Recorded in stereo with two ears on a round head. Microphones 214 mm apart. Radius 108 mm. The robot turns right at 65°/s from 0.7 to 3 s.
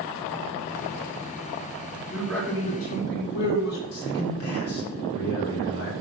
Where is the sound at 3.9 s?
65° left (ahead or behind), 4 m.